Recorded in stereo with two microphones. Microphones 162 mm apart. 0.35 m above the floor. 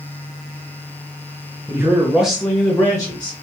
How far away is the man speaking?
About 1.1 m.